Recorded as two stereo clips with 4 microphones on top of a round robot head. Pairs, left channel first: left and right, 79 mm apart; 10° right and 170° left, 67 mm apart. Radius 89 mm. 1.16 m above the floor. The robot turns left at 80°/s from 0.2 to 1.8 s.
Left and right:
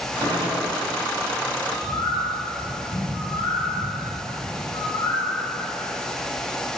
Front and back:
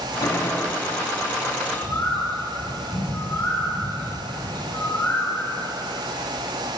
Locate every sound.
0.2 s a gunshot: 45° right, 6.5 m; by 0.7 s 90° right, 6.5 m
1.6 s a bird: 70° left, 9.5 m; by 5.7 s 55° left, 9.5 m